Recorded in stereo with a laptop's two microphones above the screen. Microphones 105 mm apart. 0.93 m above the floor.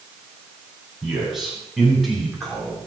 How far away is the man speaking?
About 8.5 m.